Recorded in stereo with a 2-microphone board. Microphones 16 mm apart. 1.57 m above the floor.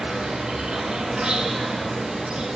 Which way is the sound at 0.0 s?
70° right (ahead or behind).